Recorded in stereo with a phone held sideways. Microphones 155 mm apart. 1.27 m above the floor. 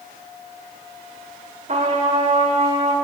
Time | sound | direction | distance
1.7 | a trumpet | 50° right (ahead or behind) | 0.9 m